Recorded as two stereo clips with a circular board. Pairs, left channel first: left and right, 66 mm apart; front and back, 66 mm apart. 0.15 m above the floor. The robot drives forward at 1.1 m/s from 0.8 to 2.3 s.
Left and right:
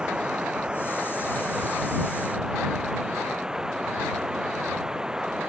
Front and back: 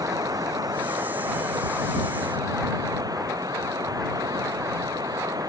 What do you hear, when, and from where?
0.0 s running water: 170° right